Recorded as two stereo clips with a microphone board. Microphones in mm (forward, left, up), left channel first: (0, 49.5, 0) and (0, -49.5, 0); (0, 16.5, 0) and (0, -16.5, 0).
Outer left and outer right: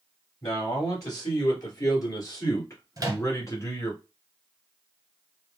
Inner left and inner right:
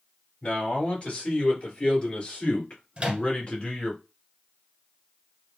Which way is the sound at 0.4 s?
40° left (ahead or behind).